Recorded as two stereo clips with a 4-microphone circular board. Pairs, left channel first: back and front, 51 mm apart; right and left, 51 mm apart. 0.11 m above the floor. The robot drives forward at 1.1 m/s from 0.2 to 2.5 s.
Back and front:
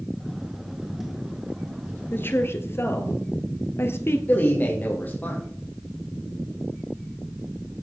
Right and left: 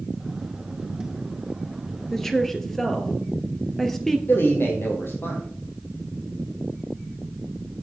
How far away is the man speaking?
About 3 m.